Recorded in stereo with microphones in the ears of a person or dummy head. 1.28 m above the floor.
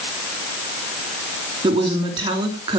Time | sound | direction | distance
1.6 | a woman speaking | 20° right (ahead or behind) | 3.5 m